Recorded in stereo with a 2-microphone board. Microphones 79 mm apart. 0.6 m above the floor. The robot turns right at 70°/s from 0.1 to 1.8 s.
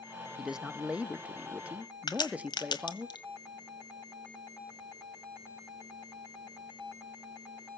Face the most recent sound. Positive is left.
turn(degrees=65)  # may be behind; listen again after turning